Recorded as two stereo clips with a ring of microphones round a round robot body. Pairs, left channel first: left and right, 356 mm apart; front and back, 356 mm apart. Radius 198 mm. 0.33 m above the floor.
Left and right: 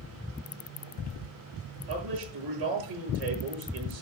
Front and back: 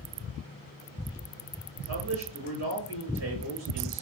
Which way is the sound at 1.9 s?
120° right.